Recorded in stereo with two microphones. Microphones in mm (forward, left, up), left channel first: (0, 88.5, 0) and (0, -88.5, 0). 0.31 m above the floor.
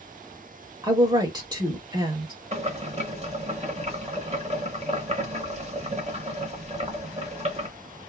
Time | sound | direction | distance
0.8 | a woman speaking | 25° right (ahead or behind) | 1.0 m
2.5 | boiling | 40° right (ahead or behind) | 0.9 m